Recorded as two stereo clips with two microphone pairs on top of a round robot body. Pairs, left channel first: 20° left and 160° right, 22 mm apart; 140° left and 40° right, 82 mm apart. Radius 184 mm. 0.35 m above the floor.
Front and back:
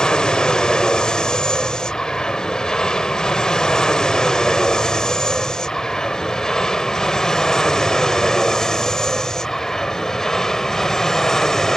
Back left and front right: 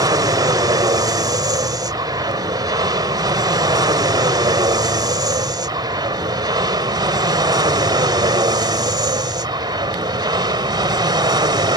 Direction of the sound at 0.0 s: 25° right.